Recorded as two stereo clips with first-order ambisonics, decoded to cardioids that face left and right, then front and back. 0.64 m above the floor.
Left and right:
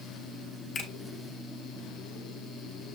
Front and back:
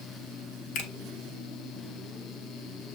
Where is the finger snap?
25° left, 1.3 m.